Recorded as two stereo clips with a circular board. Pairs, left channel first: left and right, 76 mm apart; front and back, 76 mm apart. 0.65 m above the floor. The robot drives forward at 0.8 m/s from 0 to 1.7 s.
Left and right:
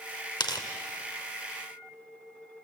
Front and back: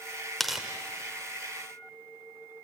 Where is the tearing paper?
90° left, 1.4 m; by 0.7 s 95° left, 1.4 m.